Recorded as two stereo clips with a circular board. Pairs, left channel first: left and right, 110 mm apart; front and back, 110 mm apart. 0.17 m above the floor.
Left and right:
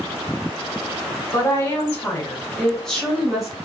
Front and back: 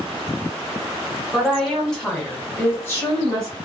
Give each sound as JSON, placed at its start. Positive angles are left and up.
{"t": 1.3, "sound": "a woman speaking", "azimuth_deg": 100, "distance_m": 1.5}